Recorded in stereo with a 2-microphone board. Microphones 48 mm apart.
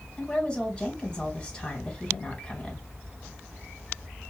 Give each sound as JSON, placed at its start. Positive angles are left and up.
{"t": 0.2, "sound": "a woman speaking", "side_deg": 15, "distance_m": 2.0}